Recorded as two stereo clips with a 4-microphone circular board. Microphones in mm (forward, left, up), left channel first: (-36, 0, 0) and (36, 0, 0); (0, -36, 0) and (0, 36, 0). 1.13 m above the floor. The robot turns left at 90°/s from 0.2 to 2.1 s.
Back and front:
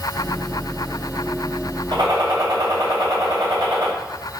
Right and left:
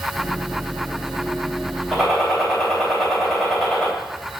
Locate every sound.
1.9 s a gunshot: 5° left, 3.5 m; by 3.9 s 10° right, 3.5 m